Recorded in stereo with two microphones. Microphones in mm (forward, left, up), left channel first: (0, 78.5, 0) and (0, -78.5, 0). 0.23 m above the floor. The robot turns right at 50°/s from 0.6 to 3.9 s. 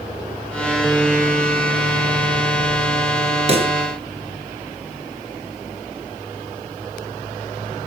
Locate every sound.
3.5 s a pop: 45° right (ahead or behind), 2 m; by 3.8 s 30° right (ahead or behind), 2 m